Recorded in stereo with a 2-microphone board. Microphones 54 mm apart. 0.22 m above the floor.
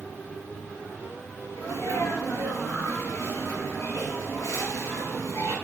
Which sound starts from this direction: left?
A sneeze, at 1.6 s.